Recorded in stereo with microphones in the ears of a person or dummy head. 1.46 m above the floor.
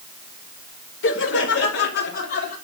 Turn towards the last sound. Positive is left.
turn(degrees=60)  # may be behind; listen again after turning